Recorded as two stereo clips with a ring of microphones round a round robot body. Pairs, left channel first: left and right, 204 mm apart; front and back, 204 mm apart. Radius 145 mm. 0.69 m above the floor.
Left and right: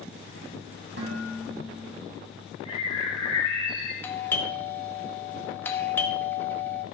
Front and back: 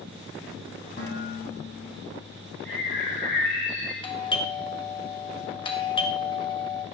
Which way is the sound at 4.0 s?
25° left.